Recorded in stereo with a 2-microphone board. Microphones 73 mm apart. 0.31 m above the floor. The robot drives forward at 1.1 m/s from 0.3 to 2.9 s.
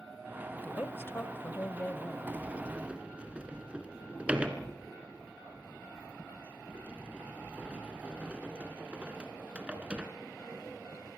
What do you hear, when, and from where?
0.6 s a woman speaking: 25° left (ahead or behind), 1.1 m; by 2.2 s 20° left (ahead or behind), 1.4 m
2.3 s a sliding door: 25° right (ahead or behind), 1.0 m; by 10.1 s 15° right (ahead or behind), 1.6 m